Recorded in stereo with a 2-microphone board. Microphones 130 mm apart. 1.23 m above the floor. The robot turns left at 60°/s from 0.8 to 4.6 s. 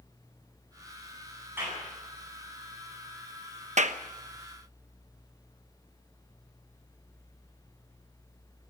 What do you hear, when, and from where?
1.6 s a clap: 20° right (ahead or behind), 9.5 m; by 1.8 s 5° right (ahead or behind), 9.5 m
3.8 s a clap: 65° right (ahead or behind), 0.9 m; by 4.0 s 75° right (ahead or behind), 0.9 m